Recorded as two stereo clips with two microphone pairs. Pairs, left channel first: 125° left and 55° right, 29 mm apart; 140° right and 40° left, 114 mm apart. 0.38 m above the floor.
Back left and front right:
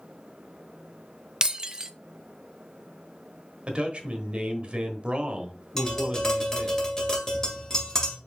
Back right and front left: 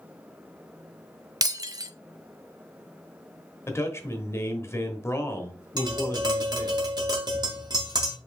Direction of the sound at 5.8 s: 65° left.